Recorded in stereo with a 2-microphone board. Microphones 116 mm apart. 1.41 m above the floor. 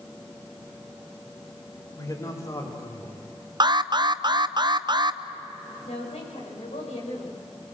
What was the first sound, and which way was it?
A man speaking, 35° left (ahead or behind).